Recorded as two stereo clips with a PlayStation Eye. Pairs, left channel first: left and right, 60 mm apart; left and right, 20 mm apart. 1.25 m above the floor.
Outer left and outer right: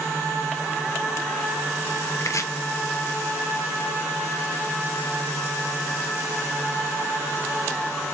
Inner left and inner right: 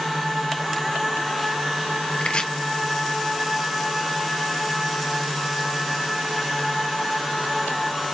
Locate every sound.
2.2 s chopping: 60° left (ahead or behind), 0.6 m